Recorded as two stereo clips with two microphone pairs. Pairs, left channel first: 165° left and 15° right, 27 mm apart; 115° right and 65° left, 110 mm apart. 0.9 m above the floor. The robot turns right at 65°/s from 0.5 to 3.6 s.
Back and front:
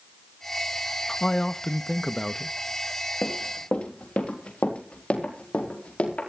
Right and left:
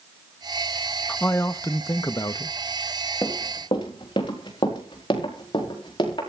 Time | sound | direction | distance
1.1 | a man speaking | 175° left | 0.6 m
3.2 | running footsteps | straight behind | 3.5 m